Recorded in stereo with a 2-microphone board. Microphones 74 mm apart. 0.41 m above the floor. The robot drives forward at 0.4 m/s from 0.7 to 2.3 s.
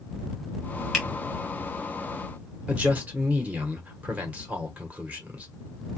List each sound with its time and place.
0.9 s a finger snap: 5° right (ahead or behind), 1.5 m
2.7 s a man speaking: 20° right (ahead or behind), 1.1 m